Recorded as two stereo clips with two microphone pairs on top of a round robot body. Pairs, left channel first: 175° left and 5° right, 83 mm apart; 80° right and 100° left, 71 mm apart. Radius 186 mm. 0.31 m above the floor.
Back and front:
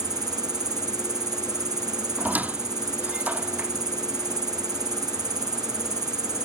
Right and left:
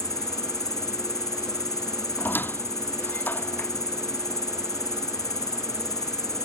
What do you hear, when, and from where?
0.0 s an insect: 45° right
2.2 s a squeak: 65° right